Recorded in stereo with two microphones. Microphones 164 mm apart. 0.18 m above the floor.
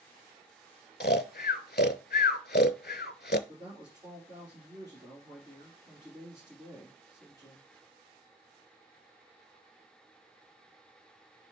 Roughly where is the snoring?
Left.